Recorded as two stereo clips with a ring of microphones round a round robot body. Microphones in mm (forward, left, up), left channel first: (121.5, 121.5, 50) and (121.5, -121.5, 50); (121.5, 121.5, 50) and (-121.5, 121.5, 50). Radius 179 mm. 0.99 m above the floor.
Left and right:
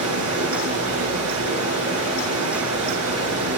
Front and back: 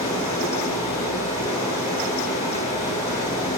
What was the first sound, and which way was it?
Running water, 75° right.